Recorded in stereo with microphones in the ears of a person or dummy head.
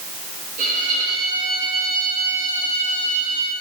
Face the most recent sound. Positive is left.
turn(degrees=-50)  # may be behind; listen again after turning